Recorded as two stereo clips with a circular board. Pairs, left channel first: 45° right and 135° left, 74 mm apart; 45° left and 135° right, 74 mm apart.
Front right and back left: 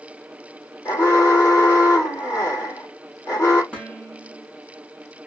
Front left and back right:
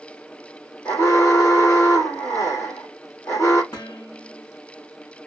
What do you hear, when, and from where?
0.8 s an alarm: straight ahead, 2 m
3.7 s dishes clattering: 25° left, 3 m